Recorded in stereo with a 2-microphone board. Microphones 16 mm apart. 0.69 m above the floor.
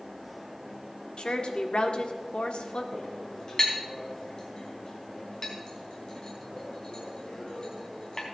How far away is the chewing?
No chewing in this recording.